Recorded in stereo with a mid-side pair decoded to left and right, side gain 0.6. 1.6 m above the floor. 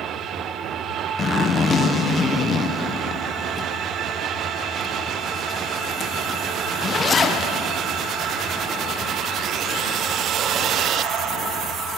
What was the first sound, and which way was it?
A zipper, 25° left.